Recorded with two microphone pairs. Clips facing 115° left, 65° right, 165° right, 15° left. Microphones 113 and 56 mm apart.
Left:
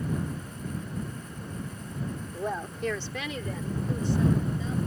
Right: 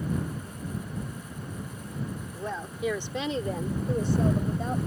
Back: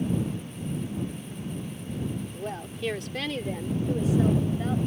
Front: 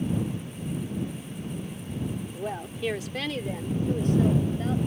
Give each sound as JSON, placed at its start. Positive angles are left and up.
{"t": 2.3, "sound": "a woman speaking", "azimuth_deg": 80}